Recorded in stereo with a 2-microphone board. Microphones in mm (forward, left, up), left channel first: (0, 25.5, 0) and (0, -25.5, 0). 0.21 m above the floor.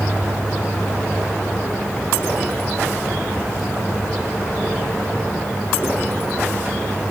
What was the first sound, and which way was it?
Only background noise.